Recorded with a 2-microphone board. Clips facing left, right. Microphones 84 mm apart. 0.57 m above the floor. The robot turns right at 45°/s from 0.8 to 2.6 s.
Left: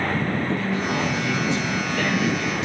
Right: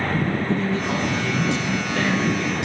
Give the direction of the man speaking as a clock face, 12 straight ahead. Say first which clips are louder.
Right 1 dB; 5 o'clock.